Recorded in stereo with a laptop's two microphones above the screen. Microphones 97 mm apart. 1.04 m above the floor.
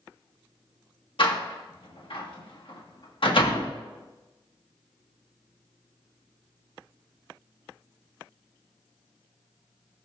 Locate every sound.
1.2 s a door slam: 60° left (ahead or behind), 1.4 m